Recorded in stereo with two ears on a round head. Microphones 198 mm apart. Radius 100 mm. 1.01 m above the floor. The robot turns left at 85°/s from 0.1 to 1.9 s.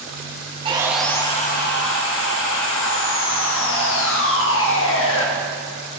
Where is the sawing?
150° right, 1.5 m; by 5.3 s 105° left, 1.5 m.